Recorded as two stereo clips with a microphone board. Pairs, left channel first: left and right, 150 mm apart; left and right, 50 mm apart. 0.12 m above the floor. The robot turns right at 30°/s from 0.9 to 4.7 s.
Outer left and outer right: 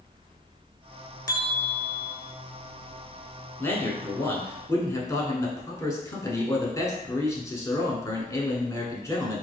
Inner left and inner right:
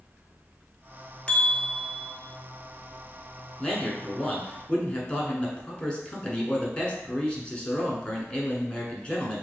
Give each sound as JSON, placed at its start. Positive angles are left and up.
{"t": 1.3, "sound": "a bell", "side_deg": 25, "distance_m": 0.5}
{"t": 3.6, "sound": "a man speaking", "side_deg": 15, "distance_m": 1.1}